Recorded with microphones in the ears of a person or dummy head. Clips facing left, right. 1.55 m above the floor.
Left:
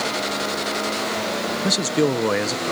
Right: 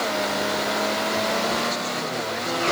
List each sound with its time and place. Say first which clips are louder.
1.6 s a man speaking: left 8 dB; 65° left (ahead or behind)